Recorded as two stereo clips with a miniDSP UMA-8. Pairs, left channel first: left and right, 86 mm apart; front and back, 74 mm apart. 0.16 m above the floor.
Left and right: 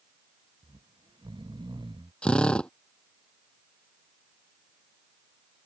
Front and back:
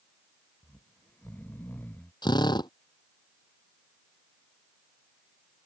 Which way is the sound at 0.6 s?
65° right.